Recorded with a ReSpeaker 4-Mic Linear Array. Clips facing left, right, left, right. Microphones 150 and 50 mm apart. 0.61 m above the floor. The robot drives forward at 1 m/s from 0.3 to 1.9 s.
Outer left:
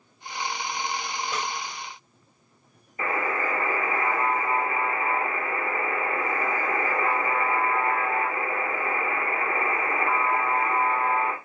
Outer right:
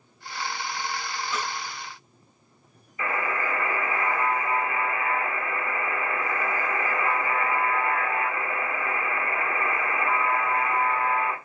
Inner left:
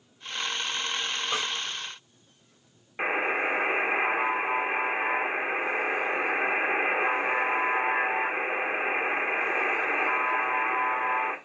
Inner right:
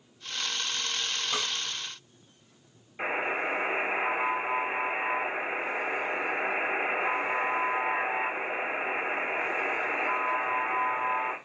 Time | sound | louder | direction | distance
1.3 | a snare drum | outer right 1 dB, inner left 2 dB | 60° left (ahead or behind) | 3.5 m
3.0 | a buzzer | outer left 1 dB, inner left 3 dB | 40° left (ahead or behind) | 1.4 m